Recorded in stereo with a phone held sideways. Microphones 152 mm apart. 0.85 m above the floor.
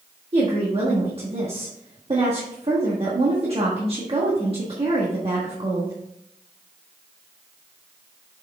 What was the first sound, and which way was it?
A woman speaking, 40° right (ahead or behind).